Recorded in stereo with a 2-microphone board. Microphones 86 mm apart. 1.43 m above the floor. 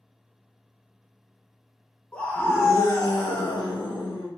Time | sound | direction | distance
2.1 | a scream | 15° left (ahead or behind) | 0.8 m